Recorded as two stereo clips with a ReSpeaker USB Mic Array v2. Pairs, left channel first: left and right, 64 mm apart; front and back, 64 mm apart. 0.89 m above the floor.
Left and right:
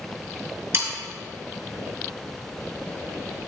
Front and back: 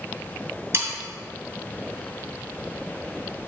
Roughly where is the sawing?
Behind right.